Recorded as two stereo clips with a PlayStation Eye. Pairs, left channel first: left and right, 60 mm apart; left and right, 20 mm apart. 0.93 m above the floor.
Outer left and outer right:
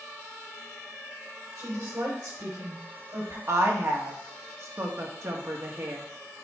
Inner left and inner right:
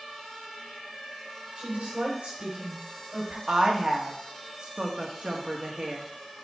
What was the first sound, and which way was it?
A woman speaking, 80° right.